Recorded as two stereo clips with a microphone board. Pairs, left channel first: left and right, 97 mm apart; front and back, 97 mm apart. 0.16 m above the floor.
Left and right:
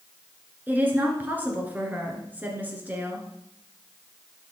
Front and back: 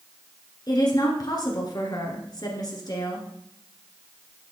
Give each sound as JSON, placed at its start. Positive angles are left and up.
{"t": 0.7, "sound": "a woman speaking", "azimuth_deg": -25, "distance_m": 2.0}